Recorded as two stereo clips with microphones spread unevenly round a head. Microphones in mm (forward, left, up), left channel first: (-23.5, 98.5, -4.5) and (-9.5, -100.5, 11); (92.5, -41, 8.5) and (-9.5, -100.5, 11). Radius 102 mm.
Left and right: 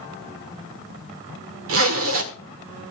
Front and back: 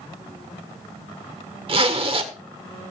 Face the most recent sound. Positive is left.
turn(degrees=-110)